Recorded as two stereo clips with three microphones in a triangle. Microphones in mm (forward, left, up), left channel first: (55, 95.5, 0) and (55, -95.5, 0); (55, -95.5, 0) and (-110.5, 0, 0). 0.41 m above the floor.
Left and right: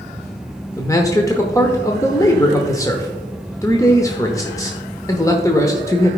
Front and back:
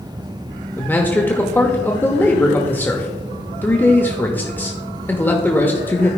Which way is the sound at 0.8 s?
35° left.